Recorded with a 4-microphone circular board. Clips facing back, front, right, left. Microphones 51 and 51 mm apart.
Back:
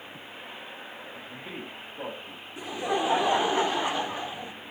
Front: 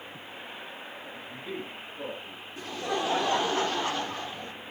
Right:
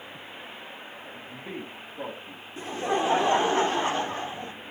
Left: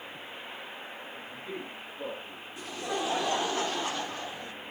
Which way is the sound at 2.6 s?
120° right.